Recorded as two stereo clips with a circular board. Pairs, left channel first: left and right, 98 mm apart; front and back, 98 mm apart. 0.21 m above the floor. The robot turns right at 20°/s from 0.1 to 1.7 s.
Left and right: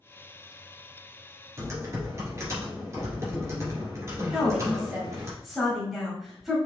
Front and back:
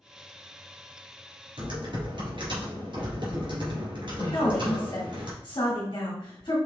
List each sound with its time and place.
1.6 s typing on a keyboard: 150° right, 2.5 m
4.3 s a woman speaking: 5° right, 1.8 m